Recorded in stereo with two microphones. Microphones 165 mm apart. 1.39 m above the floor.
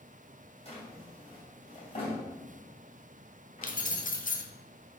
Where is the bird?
I don't hear a bird.